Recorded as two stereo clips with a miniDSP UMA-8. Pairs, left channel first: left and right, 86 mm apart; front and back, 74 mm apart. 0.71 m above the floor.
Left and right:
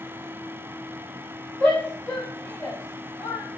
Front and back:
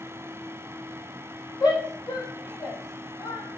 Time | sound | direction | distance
1.6 | a shout | 20° left | 6 m